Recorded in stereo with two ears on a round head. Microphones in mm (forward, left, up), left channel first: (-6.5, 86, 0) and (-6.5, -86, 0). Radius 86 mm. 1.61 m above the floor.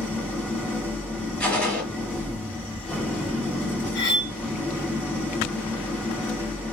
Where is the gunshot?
5° left (ahead or behind), 1.6 m.